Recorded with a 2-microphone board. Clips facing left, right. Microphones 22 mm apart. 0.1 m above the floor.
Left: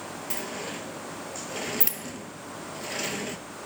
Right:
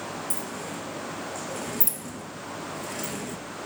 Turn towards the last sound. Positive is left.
turn(degrees=40)  # may be behind; listen again after turning